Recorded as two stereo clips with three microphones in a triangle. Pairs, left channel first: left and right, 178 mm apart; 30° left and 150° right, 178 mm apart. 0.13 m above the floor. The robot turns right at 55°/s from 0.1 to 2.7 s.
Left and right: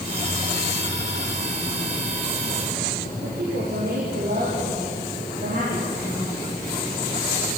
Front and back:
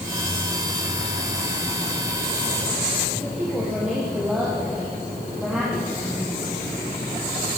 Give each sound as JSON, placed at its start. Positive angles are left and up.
{"t": 3.2, "sound": "a woman speaking", "azimuth_deg": -65, "distance_m": 5.0}